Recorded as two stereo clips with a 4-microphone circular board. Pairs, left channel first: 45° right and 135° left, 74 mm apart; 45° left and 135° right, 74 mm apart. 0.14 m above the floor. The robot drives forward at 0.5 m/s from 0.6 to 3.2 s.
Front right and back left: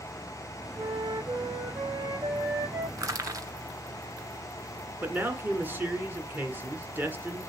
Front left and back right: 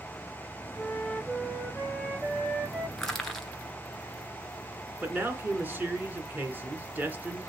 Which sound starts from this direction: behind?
A man speaking, at 5.0 s.